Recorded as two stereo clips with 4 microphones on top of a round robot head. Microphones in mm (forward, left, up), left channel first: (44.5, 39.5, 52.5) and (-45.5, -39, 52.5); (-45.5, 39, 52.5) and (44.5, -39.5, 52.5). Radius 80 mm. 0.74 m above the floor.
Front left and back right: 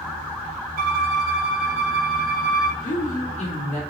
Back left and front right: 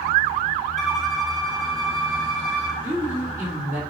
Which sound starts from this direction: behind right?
A violin, at 0.8 s.